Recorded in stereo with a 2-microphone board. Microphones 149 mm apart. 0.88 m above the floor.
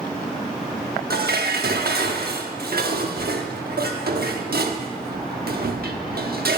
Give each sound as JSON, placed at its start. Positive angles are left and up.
{"t": 1.1, "sound": "dishes clattering", "side_deg": -85, "distance_m": 1.0}